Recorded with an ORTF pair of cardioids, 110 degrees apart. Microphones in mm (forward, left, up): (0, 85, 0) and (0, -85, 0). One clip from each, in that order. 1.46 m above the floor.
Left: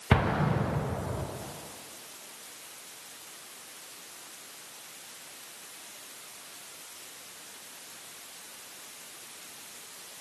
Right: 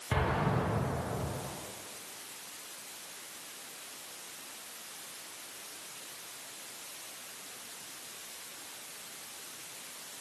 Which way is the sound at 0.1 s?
55° left.